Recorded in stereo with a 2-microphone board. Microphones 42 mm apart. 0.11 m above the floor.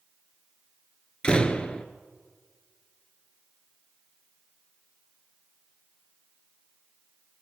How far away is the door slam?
About 1.4 m.